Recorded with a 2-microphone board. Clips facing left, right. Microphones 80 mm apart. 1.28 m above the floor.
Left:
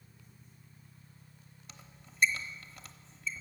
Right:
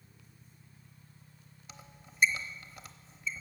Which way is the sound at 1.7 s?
10° right (ahead or behind).